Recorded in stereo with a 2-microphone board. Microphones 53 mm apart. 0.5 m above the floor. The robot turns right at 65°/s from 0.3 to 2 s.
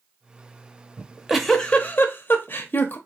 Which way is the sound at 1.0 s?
25° right (ahead or behind).